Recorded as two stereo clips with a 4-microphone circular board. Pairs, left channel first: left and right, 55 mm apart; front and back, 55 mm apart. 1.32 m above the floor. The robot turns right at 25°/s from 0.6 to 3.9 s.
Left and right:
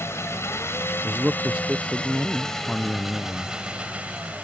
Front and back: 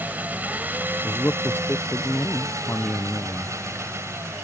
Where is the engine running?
125° left; by 4.4 s 155° right.